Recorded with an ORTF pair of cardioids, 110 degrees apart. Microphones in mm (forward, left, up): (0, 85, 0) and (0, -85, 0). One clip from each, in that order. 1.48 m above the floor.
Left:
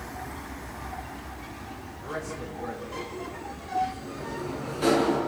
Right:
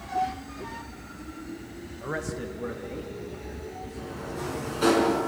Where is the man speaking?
35° right, 1.6 m; by 5.0 s 20° right, 5.5 m.